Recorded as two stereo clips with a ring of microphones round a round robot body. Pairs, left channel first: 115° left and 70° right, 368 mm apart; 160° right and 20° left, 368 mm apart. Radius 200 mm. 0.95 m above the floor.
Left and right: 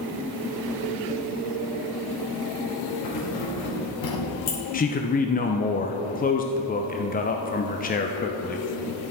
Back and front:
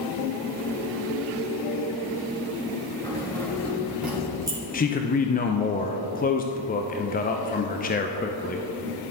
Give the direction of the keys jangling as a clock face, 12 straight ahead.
8 o'clock.